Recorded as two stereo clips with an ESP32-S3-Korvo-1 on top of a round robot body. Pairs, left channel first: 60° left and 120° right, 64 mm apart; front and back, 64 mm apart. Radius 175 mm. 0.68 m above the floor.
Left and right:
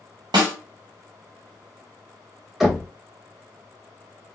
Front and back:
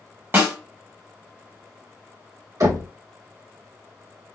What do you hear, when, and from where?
0.3 s a snare drum: 120° right, 1.0 m
2.6 s knocking: 155° left, 2 m